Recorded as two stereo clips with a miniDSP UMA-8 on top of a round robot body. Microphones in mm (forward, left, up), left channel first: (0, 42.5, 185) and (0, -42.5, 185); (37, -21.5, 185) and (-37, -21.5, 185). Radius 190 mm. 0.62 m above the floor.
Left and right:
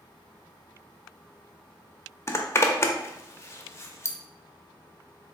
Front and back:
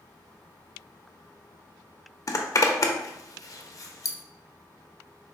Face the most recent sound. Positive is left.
turn(degrees=35)